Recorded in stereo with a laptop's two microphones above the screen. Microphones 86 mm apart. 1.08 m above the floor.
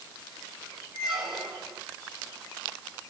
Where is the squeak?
10° right (ahead or behind), 3 m.